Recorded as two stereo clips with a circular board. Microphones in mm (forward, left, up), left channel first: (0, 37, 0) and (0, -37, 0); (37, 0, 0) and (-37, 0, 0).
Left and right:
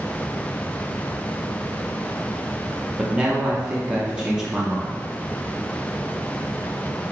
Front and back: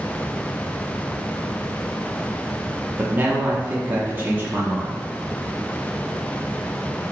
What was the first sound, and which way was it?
A man speaking, 155° right.